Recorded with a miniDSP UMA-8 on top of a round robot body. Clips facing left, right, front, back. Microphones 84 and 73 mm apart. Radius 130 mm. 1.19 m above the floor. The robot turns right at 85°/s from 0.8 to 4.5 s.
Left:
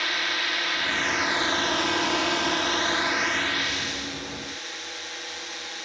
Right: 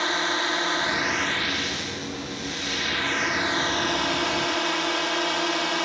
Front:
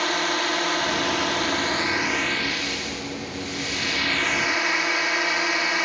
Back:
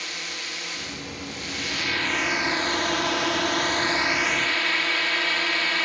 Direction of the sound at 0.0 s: 30° right.